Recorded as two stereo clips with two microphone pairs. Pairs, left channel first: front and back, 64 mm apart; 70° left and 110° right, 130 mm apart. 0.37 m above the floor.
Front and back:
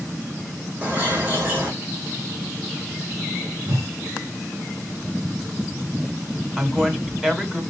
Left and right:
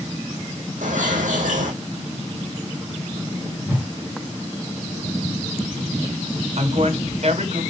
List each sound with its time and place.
0.8 s a bird: 120° right, 4.5 m
3.7 s a whoosh: 175° left, 3.5 m
6.6 s a woman speaking: 110° right, 3 m